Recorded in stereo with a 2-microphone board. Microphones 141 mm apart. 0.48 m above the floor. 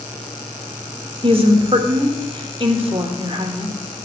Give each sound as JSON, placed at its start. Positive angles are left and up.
{"t": 1.2, "sound": "a woman speaking", "side_deg": -40, "distance_m": 1.1}